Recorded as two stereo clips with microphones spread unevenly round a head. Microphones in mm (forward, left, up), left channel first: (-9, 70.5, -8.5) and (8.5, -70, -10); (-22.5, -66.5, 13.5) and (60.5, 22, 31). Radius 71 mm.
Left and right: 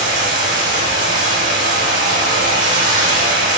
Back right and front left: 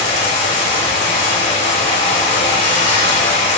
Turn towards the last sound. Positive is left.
turn(degrees=-95)